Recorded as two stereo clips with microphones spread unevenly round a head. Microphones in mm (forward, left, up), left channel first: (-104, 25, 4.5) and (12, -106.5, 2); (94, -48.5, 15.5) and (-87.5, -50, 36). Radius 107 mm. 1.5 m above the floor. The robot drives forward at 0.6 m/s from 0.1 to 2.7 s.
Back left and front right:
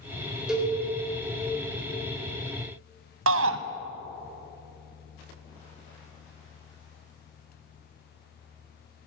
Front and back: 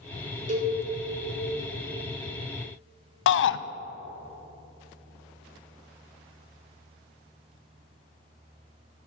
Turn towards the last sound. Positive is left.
turn(degrees=-15)